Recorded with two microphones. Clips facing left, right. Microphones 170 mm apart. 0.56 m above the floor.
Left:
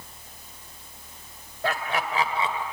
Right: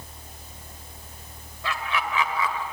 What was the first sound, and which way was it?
Laughter, 50° left (ahead or behind).